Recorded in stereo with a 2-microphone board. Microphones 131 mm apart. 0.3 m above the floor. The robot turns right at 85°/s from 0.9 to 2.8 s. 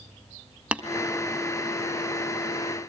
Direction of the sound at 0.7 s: 10° right (ahead or behind).